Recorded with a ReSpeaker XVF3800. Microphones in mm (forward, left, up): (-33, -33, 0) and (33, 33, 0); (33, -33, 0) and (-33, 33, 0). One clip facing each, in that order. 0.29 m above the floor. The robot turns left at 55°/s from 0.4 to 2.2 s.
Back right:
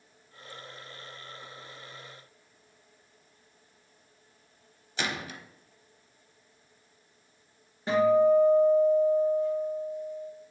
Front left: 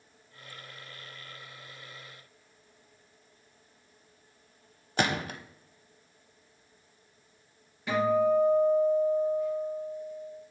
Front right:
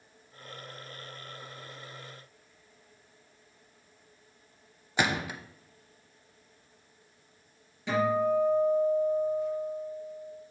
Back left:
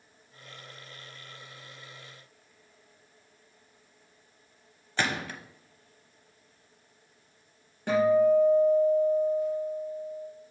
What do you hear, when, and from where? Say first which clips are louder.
5.0 s a gunshot: front left 5 dB, front right 2 dB; 30° left, 0.6 m
7.9 s a guitar: back right 4 dB, back left 5 dB; 170° left, 2.5 m